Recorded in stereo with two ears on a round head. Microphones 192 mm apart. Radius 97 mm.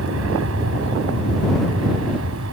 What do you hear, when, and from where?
0.0 s an aircraft: 65° right (ahead or behind); by 2.5 s 70° right (ahead or behind)